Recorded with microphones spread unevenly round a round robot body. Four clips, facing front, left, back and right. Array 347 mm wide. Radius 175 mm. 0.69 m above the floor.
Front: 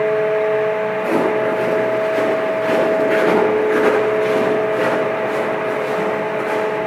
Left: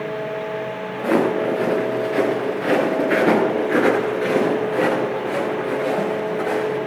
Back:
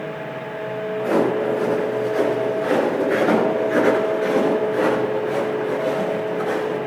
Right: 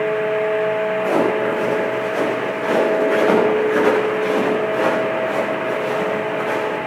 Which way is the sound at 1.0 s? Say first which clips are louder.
Left 3 dB, back 1 dB; 70° left.